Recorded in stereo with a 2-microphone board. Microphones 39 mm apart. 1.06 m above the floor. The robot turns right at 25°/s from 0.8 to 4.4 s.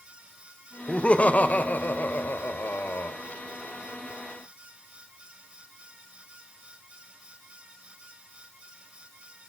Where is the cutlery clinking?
I don't hear cutlery clinking.